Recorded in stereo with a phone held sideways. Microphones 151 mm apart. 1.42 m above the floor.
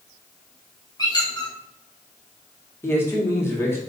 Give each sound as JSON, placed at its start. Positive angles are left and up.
{"t": 1.0, "sound": "a squeak", "side_deg": 25, "distance_m": 1.1}
{"t": 2.8, "sound": "a man speaking", "side_deg": 15, "distance_m": 1.2}